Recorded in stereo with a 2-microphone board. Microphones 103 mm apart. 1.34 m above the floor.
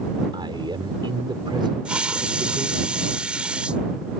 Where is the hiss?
10° right (ahead or behind).